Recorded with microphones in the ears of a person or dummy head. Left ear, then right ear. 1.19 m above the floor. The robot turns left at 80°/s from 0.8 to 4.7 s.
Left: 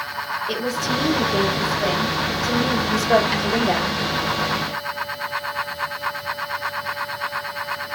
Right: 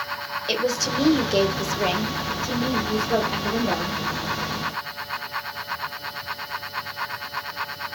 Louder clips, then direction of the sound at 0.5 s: Right 3 dB; 40° right.